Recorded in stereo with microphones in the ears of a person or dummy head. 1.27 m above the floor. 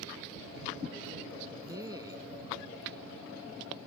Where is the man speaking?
25° right (ahead or behind).